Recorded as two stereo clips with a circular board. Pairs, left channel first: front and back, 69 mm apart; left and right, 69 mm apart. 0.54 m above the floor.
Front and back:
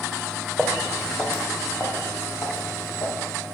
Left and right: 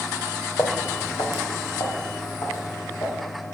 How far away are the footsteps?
About 1.0 m.